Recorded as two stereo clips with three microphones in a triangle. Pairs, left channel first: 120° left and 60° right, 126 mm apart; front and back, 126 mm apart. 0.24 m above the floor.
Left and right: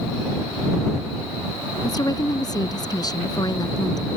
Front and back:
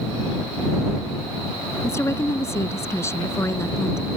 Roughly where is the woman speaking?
Ahead left.